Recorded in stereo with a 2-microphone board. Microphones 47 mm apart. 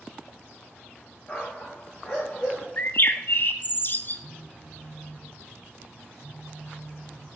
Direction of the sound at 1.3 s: 20° left (ahead or behind).